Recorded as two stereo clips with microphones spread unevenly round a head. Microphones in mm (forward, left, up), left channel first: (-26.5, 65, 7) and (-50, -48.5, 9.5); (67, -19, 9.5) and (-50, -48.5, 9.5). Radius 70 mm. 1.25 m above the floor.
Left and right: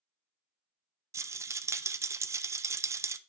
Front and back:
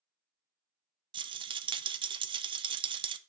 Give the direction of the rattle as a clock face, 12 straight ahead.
5 o'clock.